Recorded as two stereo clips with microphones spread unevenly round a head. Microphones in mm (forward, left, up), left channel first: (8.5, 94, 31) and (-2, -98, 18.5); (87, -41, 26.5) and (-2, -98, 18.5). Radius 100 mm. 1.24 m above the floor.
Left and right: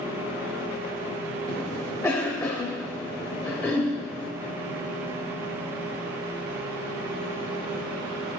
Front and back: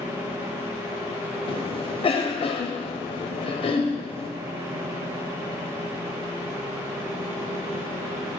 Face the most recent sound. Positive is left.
turn(degrees=10)